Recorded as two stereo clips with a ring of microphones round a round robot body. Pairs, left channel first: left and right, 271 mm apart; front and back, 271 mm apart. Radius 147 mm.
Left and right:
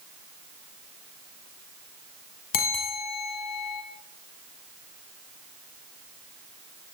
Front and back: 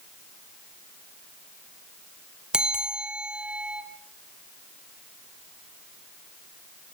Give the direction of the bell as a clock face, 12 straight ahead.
9 o'clock.